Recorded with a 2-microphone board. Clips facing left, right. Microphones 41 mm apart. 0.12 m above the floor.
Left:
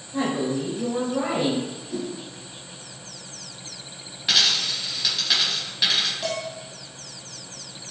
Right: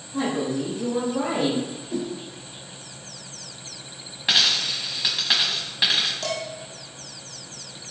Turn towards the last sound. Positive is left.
turn(degrees=15)  # may be behind; listen again after turning